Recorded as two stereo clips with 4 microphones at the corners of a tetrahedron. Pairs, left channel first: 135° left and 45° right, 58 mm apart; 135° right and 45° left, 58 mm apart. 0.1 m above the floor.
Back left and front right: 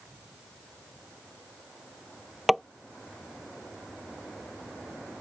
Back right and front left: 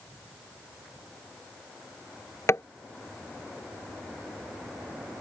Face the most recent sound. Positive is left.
turn(degrees=-135)